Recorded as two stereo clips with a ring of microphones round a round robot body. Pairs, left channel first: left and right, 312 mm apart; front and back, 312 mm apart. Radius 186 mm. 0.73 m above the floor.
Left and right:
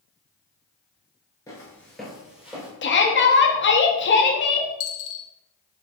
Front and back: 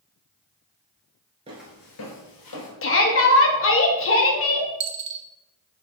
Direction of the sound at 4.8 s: 125° left.